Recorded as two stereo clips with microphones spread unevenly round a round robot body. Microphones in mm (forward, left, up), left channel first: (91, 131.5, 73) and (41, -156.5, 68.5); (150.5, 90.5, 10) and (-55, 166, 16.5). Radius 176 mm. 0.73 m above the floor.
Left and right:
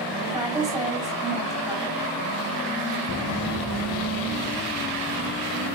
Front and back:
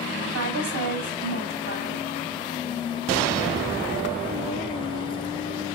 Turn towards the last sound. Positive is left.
turn(degrees=-175)